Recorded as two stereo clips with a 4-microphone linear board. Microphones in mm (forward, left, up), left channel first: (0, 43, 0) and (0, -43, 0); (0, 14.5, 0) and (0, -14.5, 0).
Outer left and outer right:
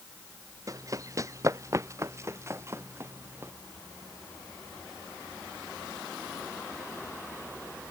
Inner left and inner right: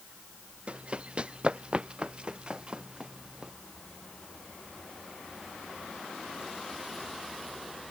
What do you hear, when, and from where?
0.7 s running footsteps: 40° right (ahead or behind); by 3.5 s 30° right (ahead or behind)